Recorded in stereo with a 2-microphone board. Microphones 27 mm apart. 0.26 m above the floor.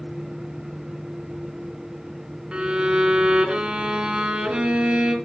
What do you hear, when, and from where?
2.5 s a violin: 45° right (ahead or behind), 2.5 m